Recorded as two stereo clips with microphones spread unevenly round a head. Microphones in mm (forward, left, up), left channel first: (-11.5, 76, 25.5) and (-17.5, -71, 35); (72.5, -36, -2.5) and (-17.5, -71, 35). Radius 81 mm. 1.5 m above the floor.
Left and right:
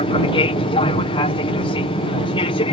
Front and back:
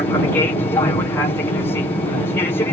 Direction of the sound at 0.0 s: 50° left.